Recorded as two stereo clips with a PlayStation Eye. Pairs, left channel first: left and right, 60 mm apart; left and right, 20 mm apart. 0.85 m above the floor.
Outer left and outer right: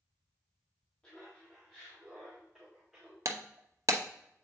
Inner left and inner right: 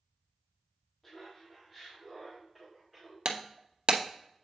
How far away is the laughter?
About 1.8 m.